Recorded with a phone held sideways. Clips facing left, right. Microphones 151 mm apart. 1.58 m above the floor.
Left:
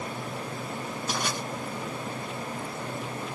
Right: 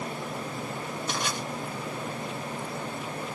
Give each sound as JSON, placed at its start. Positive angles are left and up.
{"t": 1.1, "sound": "crushing", "side_deg": 45, "distance_m": 3.0}